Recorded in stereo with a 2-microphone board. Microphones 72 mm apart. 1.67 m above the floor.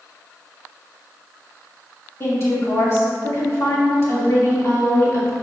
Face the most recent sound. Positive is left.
turn(degrees=40)  # may be behind; listen again after turning